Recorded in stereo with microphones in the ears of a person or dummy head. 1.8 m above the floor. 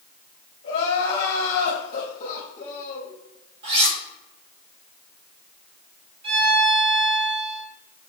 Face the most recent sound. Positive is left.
turn(degrees=-50)  # may be behind; listen again after turning